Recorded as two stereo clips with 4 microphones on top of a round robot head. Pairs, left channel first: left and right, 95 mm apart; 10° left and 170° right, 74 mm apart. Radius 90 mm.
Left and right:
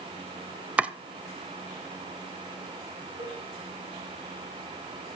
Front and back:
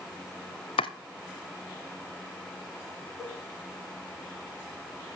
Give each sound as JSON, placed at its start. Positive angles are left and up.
{"t": 0.8, "sound": "chopping", "azimuth_deg": -15, "distance_m": 0.7}
{"t": 3.2, "sound": "a cowbell", "azimuth_deg": -110, "distance_m": 6.5}